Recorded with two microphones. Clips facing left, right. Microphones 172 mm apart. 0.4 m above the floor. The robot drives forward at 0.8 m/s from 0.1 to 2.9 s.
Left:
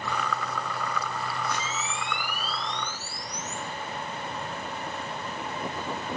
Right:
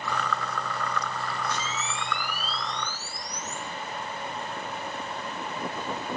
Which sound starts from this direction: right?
A camera shutter, at 1.5 s.